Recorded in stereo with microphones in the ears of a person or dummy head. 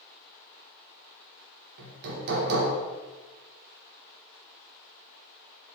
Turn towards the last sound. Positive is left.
turn(degrees=-55)  # may be behind; listen again after turning